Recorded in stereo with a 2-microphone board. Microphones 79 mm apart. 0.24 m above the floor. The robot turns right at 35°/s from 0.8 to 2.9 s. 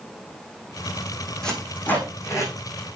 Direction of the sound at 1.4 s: 5° left (ahead or behind).